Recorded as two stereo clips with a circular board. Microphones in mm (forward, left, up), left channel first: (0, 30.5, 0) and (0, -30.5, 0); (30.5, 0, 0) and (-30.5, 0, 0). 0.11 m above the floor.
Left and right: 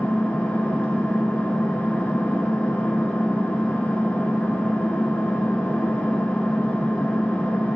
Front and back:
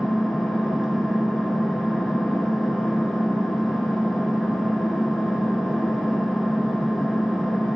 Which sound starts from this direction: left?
An engine running, at 0.0 s.